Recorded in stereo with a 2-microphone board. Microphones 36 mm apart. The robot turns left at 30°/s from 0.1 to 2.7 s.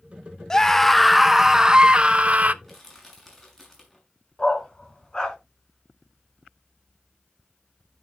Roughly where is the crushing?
Centre.